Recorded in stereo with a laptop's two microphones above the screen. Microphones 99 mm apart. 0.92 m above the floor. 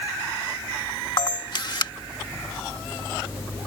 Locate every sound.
1.2 s a camera shutter: 50° left (ahead or behind)